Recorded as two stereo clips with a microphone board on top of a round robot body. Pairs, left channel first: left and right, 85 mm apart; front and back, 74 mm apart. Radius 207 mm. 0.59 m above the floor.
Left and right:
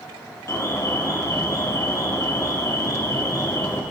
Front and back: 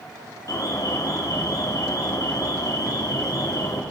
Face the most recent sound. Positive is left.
turn(degrees=35)